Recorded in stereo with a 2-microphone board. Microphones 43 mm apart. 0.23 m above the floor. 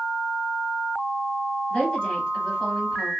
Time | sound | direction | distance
1.7 | a woman speaking | 20° left (ahead or behind) | 1.7 m